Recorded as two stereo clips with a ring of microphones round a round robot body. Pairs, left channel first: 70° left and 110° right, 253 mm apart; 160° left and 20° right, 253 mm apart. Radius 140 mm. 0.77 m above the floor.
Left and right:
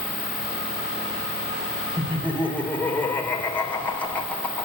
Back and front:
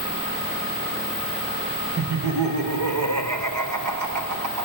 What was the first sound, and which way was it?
Laughter, 15° right.